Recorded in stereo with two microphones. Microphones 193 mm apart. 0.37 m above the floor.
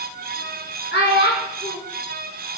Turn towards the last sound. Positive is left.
turn(degrees=65)  # may be behind; listen again after turning